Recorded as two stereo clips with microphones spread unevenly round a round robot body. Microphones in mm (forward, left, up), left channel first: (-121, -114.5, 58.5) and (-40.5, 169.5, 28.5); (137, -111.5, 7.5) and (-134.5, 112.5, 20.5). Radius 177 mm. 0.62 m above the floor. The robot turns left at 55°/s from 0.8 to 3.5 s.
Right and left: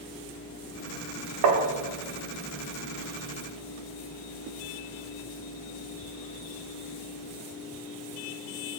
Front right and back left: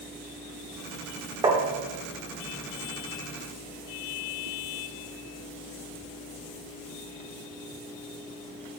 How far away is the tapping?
About 1.4 m.